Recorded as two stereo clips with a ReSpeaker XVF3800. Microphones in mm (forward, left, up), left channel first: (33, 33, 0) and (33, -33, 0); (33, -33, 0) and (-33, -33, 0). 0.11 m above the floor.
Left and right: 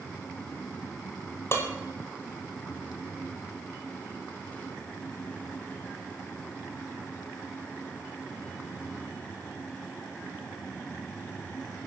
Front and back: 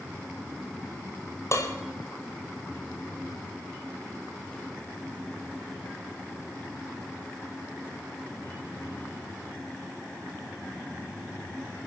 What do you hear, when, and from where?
1.5 s dishes clattering: 40° left, 2 m